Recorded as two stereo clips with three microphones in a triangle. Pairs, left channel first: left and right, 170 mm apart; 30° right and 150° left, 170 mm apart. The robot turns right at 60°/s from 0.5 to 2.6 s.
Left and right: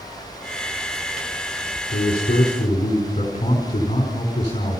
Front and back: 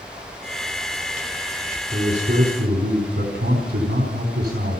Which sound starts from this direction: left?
A man speaking, at 1.9 s.